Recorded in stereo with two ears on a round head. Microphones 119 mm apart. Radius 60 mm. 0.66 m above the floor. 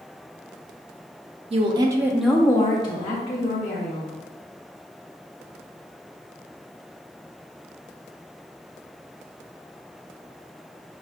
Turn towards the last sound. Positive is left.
turn(degrees=55)  # may be behind; listen again after turning